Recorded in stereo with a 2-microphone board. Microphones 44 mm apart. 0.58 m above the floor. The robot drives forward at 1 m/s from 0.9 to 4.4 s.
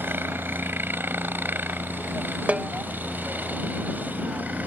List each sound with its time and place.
0.0 s a helicopter: 55° right (ahead or behind); by 4.7 s 40° right (ahead or behind)
2.5 s a snare drum: 35° right (ahead or behind); by 2.7 s 30° right (ahead or behind)